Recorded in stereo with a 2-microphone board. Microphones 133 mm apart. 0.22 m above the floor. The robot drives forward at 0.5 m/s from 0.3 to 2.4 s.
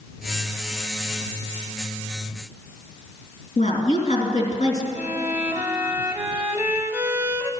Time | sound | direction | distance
3.6 | a woman speaking | 65° left (ahead or behind) | 3 m
5.0 | a violin | 20° right (ahead or behind) | 0.9 m